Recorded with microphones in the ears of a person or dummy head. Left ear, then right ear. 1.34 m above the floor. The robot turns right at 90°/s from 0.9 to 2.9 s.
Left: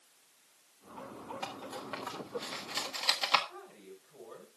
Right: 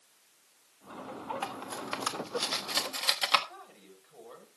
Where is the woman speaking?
15° right (ahead or behind), 6.5 m.